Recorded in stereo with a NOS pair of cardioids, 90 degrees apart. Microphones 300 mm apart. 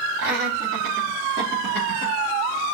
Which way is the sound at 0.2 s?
50° right.